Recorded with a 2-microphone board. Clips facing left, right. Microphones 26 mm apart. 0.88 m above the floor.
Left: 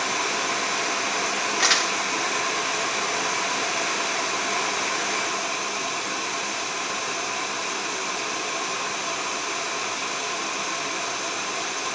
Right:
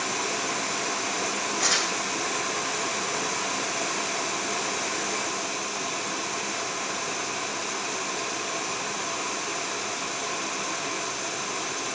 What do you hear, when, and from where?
1.6 s crumpling: 55° left (ahead or behind), 1.2 m